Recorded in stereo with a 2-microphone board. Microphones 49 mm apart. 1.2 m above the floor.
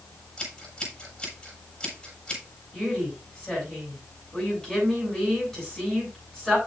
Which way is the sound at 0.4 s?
15° left (ahead or behind).